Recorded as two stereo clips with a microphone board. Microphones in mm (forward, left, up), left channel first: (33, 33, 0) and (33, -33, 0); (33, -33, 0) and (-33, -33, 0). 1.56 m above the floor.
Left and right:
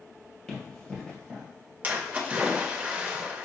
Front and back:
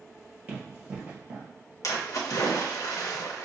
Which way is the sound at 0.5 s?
150° left.